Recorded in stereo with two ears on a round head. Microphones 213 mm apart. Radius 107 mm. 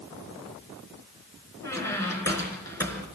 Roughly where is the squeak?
Centre.